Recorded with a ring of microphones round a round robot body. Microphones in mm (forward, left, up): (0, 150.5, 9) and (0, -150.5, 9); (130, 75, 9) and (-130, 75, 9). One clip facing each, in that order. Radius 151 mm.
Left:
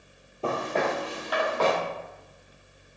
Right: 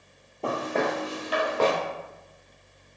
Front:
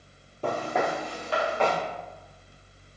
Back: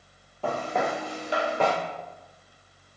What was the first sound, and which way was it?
Footsteps, 10° left.